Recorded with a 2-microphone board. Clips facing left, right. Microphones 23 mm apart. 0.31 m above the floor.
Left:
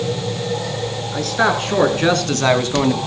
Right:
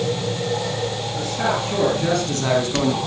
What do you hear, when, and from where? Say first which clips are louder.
1.1 s a man speaking: left 7 dB; 60° left (ahead or behind), 4 m; by 3.0 s 25° left (ahead or behind), 1.8 m